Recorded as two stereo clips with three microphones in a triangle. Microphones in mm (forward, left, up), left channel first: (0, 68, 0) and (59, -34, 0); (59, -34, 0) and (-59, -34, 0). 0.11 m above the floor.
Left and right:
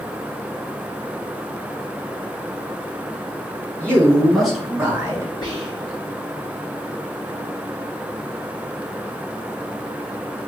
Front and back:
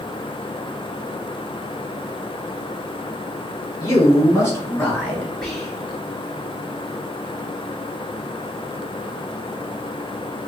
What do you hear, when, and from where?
3.8 s a man speaking: 50° left, 2 m; by 5.3 s 80° right, 1.7 m
5.4 s whispering: 85° left, 2 m